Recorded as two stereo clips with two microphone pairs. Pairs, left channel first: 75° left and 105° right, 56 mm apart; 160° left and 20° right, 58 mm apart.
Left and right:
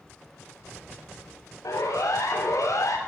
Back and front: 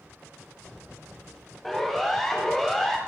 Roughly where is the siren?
Left.